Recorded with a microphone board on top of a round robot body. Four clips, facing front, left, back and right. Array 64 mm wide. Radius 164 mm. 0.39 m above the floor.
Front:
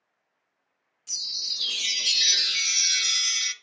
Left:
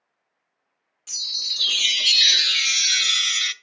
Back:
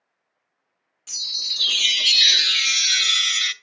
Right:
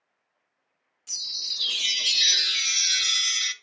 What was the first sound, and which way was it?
A chime, 145° left.